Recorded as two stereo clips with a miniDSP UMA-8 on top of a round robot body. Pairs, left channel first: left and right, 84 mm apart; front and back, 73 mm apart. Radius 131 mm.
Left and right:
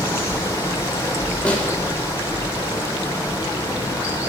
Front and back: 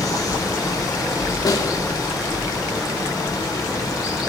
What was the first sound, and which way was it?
Running water, 35° left.